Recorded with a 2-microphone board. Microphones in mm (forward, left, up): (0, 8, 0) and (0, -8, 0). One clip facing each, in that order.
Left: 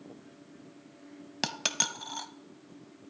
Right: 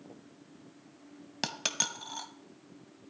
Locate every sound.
1.4 s a dropped coin: 10° left (ahead or behind), 0.5 m